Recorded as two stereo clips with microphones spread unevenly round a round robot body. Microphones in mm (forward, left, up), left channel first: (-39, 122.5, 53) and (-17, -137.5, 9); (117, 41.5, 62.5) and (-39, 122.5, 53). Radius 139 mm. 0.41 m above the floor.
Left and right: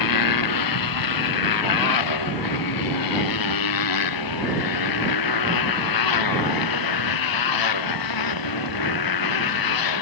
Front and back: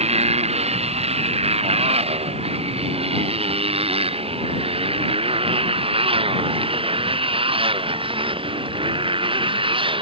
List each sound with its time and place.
0.0 s a motorcycle: 100° left; by 10.0 s 90° left